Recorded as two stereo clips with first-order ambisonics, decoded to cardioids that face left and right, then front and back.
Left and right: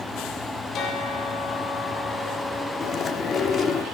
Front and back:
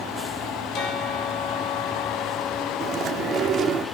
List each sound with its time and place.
0.7 s a bell: 35° left, 4.5 m
2.8 s chewing: 145° left, 1.1 m